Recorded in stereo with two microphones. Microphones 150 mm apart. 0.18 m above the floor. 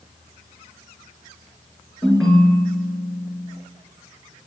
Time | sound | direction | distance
2.0 | a ringtone | 5° left (ahead or behind) | 1.3 m